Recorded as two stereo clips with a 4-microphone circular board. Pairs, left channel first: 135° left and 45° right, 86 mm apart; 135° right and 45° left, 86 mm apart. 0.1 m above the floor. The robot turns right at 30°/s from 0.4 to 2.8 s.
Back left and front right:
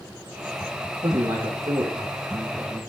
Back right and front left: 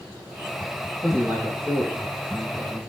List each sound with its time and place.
1.0 s a man speaking: 60° right, 4.5 m; by 2.8 s 5° right, 4.5 m